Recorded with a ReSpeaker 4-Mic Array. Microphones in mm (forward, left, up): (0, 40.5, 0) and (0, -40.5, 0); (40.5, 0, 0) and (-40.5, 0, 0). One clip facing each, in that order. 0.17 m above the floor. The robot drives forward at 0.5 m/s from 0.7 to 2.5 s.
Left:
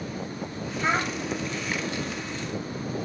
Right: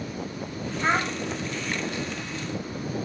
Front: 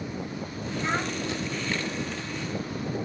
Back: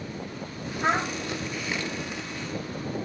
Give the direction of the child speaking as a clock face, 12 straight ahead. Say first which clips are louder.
Right 1 dB, back 4 dB; 5 o'clock.